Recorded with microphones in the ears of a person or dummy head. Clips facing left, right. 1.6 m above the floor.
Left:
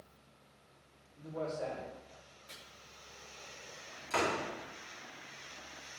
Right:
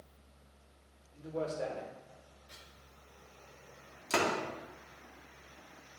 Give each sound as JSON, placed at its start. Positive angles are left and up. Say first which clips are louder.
{"t": 1.1, "sound": "a man speaking", "louder": "right 2 dB", "side_deg": -35, "distance_m": 3.0}
{"t": 2.5, "sound": "chopping", "louder": "left 5 dB", "side_deg": 70, "distance_m": 4.0}
{"t": 4.1, "sound": "a door slam", "louder": "right 2 dB", "side_deg": -55, "distance_m": 2.5}